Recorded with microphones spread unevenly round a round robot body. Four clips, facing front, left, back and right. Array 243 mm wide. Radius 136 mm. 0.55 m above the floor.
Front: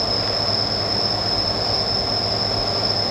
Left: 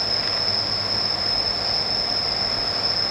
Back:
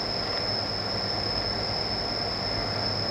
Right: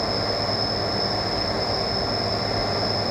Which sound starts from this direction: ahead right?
An insect, at 0.0 s.